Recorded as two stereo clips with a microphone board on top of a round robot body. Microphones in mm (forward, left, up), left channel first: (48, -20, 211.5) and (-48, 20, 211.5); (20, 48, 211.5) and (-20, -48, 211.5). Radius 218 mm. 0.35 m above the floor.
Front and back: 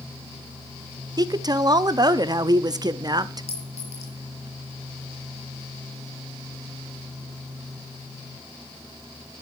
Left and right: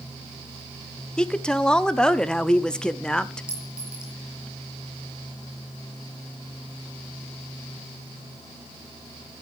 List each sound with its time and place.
1.2 s a woman speaking: 145° left, 1.4 m
3.5 s a clink: 35° right, 6.5 m